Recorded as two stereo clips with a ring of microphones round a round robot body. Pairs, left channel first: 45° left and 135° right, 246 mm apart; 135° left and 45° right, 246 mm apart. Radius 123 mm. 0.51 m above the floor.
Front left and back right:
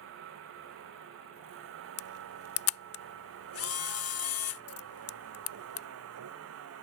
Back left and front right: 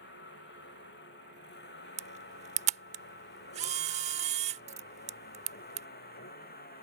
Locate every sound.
0.0 s a vehicle: 175° right; by 6.8 s 170° right
2.0 s a camera shutter: 20° left